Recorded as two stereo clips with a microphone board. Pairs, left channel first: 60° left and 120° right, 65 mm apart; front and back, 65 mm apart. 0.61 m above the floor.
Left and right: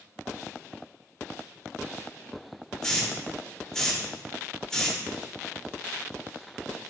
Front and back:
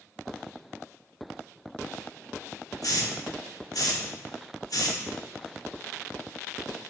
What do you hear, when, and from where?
2.8 s a hiss: 20° right, 0.7 m